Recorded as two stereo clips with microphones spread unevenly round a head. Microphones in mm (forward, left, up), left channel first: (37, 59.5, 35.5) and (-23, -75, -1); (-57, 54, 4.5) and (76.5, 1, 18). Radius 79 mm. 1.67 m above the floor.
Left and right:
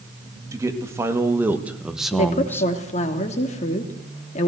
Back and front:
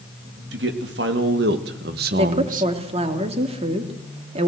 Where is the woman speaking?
25° left, 3 m.